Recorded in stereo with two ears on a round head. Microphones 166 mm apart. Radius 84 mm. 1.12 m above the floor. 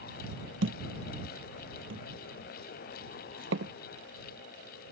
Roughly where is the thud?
Right.